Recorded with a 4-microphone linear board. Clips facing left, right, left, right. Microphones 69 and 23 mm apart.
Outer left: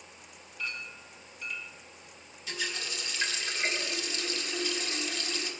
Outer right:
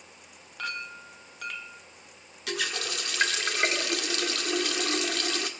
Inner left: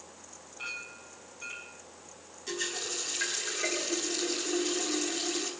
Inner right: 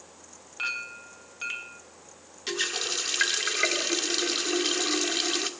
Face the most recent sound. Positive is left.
turn(degrees=-70)  # may be behind; listen again after turning